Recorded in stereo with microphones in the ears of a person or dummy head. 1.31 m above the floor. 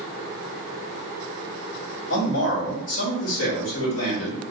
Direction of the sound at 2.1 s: 75° left (ahead or behind).